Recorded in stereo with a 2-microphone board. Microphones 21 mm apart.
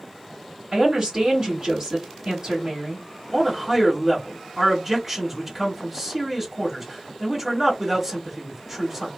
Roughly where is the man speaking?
Right.